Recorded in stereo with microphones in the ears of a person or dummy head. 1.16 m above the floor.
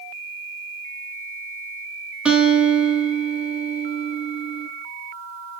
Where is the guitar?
10° right (ahead or behind), 0.6 m.